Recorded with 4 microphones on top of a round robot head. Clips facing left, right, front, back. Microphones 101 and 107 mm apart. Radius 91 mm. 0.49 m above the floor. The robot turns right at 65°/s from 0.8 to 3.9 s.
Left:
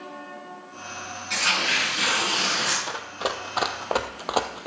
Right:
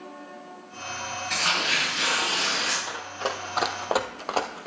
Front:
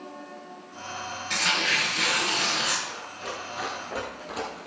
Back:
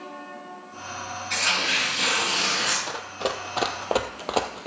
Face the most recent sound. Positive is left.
turn(degrees=155)